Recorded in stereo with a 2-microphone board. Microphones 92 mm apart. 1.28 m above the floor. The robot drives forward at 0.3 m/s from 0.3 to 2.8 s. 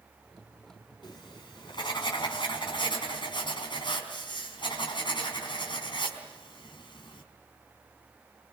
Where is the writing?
55° left (ahead or behind), 4 m; by 7.2 s 60° left (ahead or behind), 4 m.